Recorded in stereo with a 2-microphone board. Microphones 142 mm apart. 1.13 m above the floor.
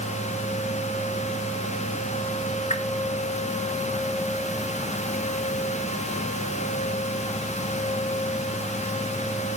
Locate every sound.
2.7 s a whoosh: 60° left (ahead or behind), 1.7 m